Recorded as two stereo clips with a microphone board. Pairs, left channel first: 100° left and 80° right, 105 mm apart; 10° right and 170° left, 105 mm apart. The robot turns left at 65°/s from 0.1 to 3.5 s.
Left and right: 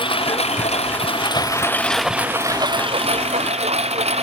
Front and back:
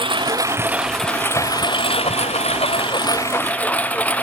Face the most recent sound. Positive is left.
turn(degrees=-85)